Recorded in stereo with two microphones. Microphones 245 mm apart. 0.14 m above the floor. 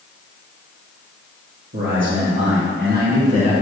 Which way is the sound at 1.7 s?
60° right (ahead or behind).